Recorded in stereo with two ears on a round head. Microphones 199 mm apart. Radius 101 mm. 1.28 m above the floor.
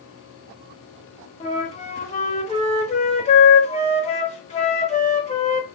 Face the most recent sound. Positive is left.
turn(degrees=30)  # may be behind; listen again after turning